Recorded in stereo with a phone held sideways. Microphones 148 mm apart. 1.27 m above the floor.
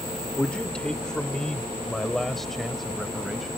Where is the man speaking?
5° left (ahead or behind); by 3.5 s centre (ahead or behind).